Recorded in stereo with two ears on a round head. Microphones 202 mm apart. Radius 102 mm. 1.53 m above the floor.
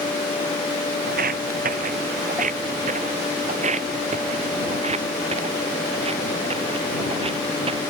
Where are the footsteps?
40° right (ahead or behind); by 7.8 s 25° right (ahead or behind).